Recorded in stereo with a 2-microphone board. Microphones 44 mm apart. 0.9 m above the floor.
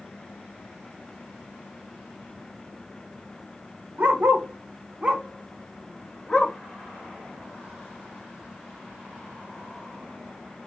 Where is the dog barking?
60° right (ahead or behind), 0.8 m; by 6.5 s 15° left (ahead or behind), 1.1 m.